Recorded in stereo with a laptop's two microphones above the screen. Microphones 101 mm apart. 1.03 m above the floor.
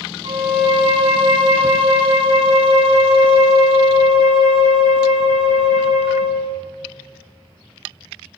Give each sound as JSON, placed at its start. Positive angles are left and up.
{"t": 0.2, "sound": "a violin", "side_deg": -80, "distance_m": 2.5}